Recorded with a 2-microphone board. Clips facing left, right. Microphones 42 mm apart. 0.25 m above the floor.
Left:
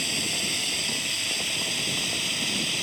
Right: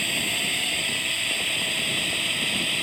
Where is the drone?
25° right (ahead or behind); by 2.8 s 20° right (ahead or behind).